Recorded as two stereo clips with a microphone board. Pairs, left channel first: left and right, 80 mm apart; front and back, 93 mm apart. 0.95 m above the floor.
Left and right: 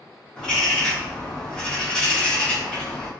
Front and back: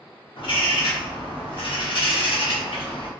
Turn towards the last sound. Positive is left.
turn(degrees=10)